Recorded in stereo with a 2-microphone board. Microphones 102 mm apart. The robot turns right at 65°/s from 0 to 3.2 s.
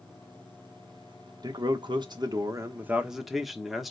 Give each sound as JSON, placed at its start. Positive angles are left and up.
{"t": 1.4, "sound": "a man speaking", "azimuth_deg": -115, "distance_m": 1.0}